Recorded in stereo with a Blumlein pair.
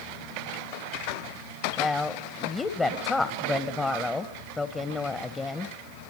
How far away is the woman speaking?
About 1.5 m.